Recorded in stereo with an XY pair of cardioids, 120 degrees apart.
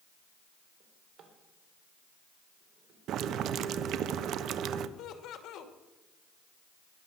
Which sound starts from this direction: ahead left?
Laughter, at 5.0 s.